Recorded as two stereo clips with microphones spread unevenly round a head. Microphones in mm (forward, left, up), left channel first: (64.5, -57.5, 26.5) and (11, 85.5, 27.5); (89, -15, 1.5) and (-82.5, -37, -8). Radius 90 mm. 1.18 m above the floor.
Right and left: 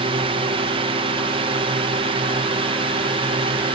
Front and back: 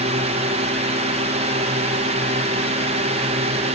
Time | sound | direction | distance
0.0 | a drone | 150° left | ?